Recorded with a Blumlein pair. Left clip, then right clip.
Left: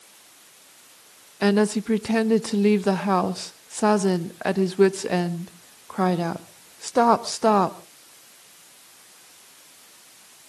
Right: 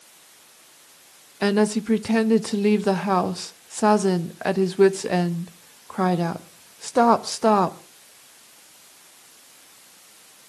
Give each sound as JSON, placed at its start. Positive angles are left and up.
{"t": 1.4, "sound": "a woman speaking", "azimuth_deg": 0, "distance_m": 1.0}